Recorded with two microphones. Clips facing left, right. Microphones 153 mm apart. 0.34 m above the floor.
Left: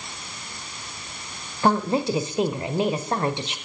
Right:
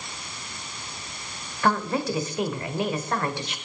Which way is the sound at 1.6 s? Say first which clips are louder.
Left 3 dB; 20° left (ahead or behind).